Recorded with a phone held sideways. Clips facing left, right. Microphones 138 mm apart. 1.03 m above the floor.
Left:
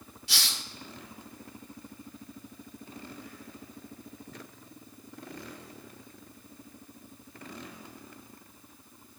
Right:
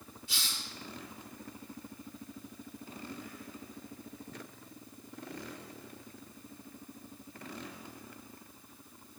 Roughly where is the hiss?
Left.